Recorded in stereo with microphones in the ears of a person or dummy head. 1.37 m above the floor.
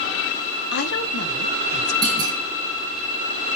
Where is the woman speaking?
55° left (ahead or behind), 1.6 m.